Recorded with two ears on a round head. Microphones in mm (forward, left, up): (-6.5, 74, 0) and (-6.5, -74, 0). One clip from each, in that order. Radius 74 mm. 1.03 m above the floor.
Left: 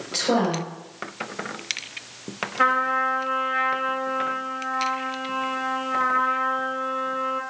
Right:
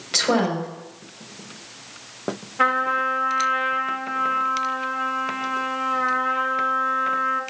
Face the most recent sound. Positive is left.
turn(degrees=-5)  # may be behind; listen again after turning